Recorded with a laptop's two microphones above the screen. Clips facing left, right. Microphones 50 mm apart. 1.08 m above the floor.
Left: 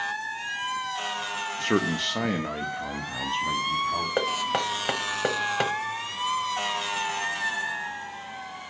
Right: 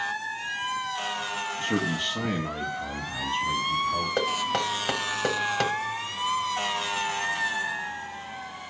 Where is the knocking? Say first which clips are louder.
Even; 20° left (ahead or behind), 1.0 m.